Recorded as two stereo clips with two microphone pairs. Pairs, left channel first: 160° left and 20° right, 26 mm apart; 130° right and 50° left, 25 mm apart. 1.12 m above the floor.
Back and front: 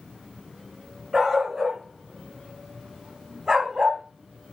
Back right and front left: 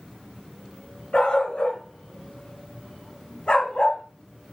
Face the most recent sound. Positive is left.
turn(degrees=-90)